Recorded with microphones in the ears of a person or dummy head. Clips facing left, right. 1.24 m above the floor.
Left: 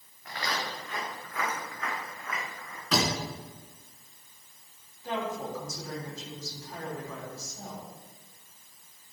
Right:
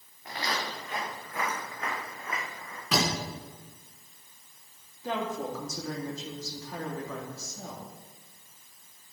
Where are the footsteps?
30° right (ahead or behind), 4.5 m.